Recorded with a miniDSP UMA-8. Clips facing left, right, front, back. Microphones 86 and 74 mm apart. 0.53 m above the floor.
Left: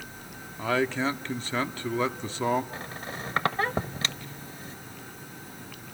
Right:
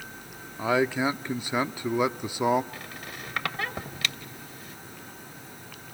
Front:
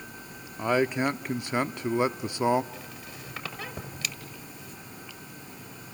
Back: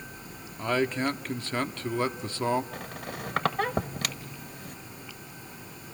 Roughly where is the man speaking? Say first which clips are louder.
Right 2 dB, front 2 dB; ahead right.